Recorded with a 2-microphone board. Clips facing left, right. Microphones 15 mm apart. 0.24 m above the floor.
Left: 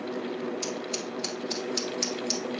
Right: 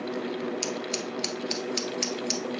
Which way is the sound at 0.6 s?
50° right (ahead or behind).